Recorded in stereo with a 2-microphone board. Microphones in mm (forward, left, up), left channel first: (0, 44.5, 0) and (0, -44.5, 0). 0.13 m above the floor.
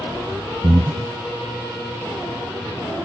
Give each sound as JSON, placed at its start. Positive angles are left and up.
{"t": 0.6, "sound": "breathing", "side_deg": -55, "distance_m": 0.6}